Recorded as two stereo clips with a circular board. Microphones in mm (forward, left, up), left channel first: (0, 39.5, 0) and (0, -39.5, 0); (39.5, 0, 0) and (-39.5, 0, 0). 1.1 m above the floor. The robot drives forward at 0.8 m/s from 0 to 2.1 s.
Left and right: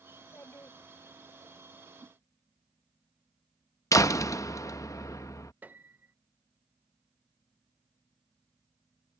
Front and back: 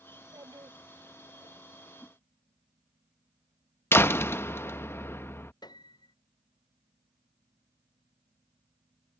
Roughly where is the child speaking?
Behind left.